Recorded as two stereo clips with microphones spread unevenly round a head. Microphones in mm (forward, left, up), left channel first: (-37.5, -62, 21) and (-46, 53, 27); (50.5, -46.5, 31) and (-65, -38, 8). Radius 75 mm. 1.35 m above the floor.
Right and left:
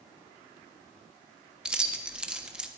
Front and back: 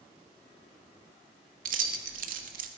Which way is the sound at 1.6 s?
175° left.